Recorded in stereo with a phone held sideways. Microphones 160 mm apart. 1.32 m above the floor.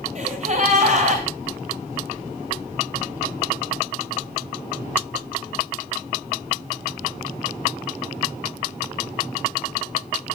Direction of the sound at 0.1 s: 50° right (ahead or behind).